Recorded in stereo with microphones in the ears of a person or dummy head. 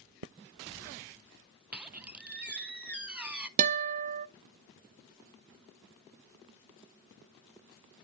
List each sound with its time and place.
1.7 s a squeak: 10° right (ahead or behind), 0.5 m
3.6 s a guitar: 45° right (ahead or behind), 0.7 m